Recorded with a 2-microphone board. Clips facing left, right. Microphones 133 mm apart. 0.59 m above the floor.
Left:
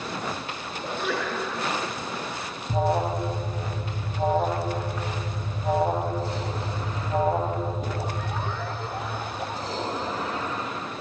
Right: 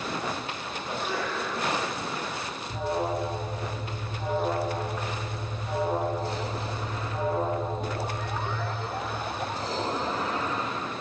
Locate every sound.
0.8 s a sneeze: 75° left (ahead or behind), 6.5 m
2.7 s an alarm: 55° left (ahead or behind), 3.5 m